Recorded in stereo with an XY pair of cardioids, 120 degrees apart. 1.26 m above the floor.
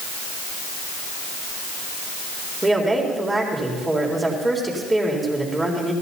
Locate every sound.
2.6 s a woman speaking: 15° right, 3.5 m